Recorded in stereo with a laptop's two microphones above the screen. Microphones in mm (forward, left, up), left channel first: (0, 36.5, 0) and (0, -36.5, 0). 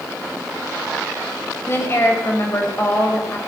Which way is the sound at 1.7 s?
35° left (ahead or behind).